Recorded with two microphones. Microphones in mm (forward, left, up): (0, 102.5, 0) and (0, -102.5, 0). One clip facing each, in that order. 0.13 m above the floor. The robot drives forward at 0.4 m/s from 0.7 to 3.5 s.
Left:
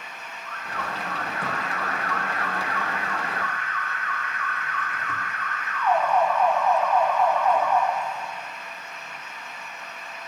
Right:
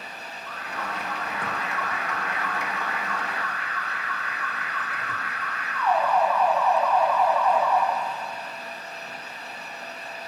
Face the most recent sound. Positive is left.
turn(degrees=-5)  # may be behind; listen again after turning